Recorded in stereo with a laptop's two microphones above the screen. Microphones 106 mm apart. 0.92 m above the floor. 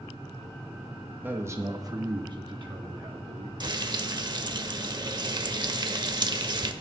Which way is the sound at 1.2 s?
15° right (ahead or behind).